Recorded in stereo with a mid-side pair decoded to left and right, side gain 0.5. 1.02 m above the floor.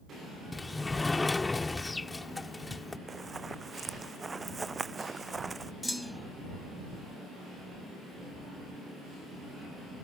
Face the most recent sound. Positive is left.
turn(degrees=5)